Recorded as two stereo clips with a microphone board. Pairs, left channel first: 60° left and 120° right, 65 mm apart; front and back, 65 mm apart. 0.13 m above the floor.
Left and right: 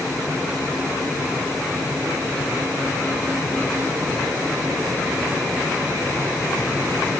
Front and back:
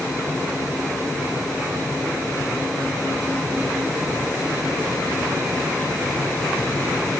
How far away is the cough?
I don't hear a cough.